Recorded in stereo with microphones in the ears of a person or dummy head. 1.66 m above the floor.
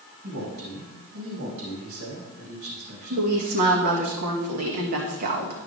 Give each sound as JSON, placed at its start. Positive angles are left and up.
{"t": 0.2, "sound": "a man speaking", "side_deg": -60, "distance_m": 3.0}
{"t": 3.1, "sound": "a woman speaking", "side_deg": -50, "distance_m": 1.8}